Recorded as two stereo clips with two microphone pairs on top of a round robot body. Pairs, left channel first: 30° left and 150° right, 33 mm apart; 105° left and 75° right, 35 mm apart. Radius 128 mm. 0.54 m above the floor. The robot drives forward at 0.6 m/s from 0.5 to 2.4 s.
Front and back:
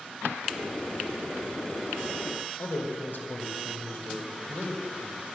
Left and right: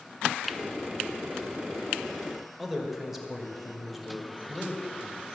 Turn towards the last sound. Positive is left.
turn(degrees=10)